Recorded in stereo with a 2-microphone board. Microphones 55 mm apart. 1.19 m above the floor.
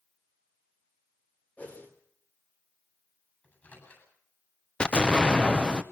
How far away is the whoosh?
About 3 m.